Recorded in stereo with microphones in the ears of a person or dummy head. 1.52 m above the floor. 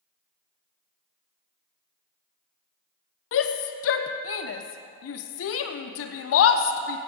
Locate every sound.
3.3 s a shout: 75° left (ahead or behind), 0.6 m